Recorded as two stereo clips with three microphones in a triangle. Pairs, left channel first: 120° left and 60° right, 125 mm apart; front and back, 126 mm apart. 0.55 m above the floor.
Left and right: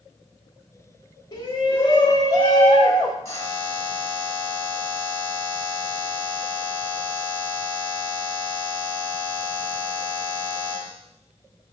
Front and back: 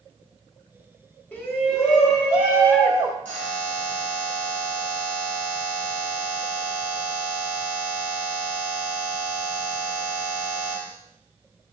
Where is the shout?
80° left, 1.7 m; by 3.1 s 130° left, 1.4 m.